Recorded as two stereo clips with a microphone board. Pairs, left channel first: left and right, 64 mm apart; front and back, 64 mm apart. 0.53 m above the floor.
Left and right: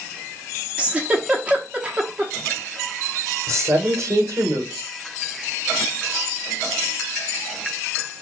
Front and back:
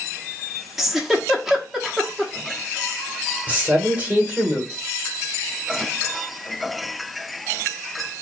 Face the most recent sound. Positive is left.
turn(degrees=-115)